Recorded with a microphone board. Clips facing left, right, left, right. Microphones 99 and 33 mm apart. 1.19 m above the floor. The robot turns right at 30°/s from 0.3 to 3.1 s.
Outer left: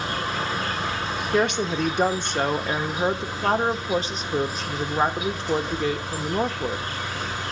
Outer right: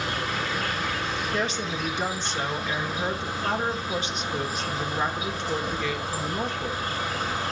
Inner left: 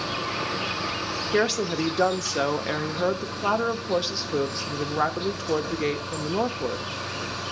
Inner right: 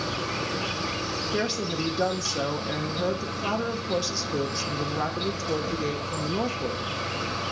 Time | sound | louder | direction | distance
0.0 | an insect | outer left 2 dB, inner left 1 dB | 140° left | 7.5 m
1.3 | a woman speaking | outer left 10 dB, inner left 6 dB | 85° left | 1.1 m